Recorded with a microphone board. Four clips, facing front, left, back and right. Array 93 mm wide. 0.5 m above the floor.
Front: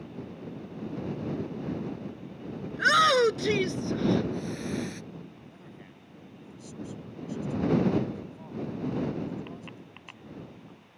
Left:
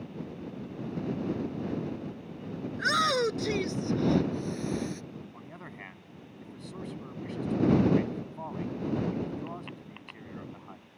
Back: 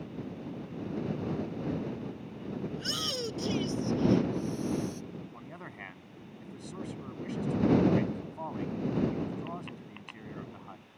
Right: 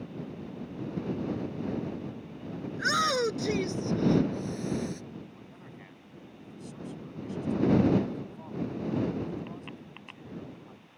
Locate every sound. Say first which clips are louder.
2.7 s a shout: left 1 dB, front 15 dB; straight ahead; by 5.0 s 5° left
5.3 s a man speaking: left 3 dB, back 3 dB; 145° left